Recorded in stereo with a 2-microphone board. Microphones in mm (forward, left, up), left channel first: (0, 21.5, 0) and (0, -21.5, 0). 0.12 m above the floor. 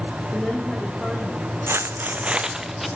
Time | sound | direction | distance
0.3 | a woman speaking | 5° left (ahead or behind) | 6.5 m
1.7 | footsteps | 75° right (ahead or behind) | 0.7 m